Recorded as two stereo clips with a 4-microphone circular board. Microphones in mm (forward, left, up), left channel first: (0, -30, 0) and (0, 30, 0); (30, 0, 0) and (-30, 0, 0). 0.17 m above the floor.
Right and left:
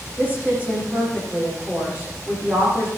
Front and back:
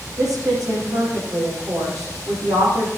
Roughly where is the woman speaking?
Behind left.